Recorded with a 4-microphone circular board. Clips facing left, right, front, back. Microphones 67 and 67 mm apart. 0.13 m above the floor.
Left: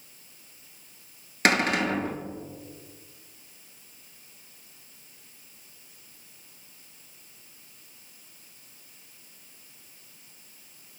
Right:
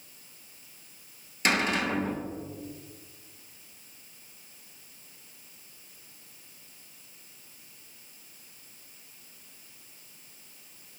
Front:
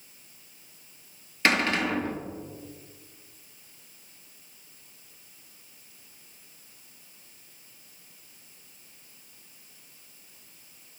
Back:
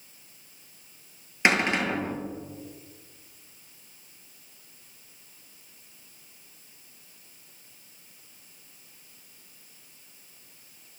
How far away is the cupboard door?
About 0.7 m.